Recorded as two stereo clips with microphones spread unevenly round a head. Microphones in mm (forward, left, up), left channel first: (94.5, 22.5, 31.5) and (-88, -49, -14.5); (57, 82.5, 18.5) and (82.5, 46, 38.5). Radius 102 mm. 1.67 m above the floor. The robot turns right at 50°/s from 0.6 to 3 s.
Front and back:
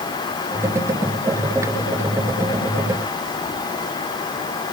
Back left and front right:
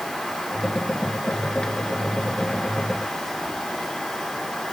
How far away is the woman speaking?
I don't hear a woman speaking.